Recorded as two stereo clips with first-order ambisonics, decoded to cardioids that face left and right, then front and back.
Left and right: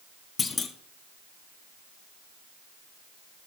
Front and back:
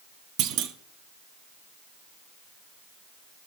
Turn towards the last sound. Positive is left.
turn(degrees=155)